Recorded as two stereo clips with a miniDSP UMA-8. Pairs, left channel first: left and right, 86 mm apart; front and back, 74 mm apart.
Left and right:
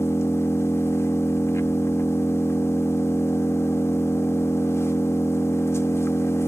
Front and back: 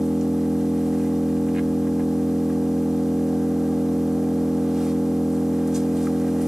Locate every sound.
0.0 s an engine running: 105° left, 0.7 m